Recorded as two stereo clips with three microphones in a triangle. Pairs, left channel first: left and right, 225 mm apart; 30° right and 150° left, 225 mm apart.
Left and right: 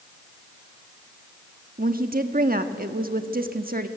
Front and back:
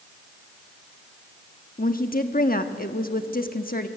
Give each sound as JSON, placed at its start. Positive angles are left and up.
{"t": 1.8, "sound": "a woman speaking", "azimuth_deg": -60, "distance_m": 1.2}